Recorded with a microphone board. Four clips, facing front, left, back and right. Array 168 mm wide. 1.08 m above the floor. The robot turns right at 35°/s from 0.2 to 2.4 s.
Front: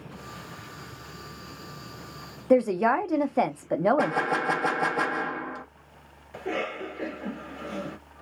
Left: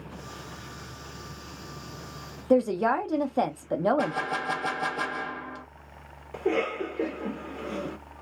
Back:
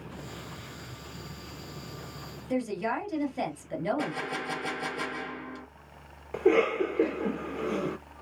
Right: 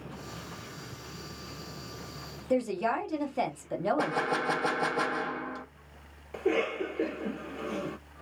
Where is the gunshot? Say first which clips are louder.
Left 1 dB, front 8 dB; 15° right, 0.6 m.